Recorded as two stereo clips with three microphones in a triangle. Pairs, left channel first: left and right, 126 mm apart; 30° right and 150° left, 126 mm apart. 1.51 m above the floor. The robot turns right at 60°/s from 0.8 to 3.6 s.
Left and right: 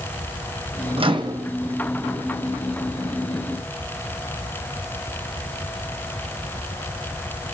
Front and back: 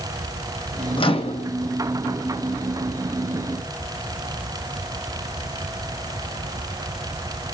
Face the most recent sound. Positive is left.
turn(degrees=95)